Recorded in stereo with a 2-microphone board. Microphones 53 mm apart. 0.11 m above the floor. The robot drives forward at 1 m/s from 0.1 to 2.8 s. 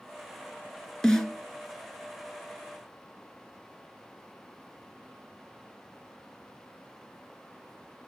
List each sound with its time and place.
1.0 s a snare drum: 10° left (ahead or behind), 1.6 m; by 1.3 s 15° left (ahead or behind), 1.4 m